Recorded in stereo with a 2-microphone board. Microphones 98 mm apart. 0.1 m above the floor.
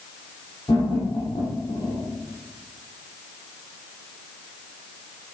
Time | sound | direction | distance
0.7 | laughter | 35° left (ahead or behind) | 3.5 m